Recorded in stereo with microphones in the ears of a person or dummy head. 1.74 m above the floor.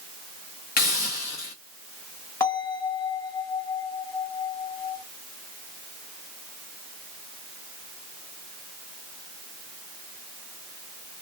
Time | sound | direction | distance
0.8 | a hiss | 55° left (ahead or behind) | 0.9 m
2.4 | a bell | 15° left (ahead or behind) | 0.8 m